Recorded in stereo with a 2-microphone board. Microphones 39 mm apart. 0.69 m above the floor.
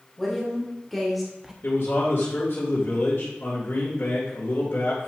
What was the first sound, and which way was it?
A woman speaking, 5° left (ahead or behind).